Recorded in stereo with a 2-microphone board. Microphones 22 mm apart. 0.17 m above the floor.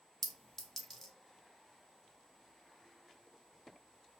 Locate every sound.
0.2 s a clink: 25° left (ahead or behind), 0.6 m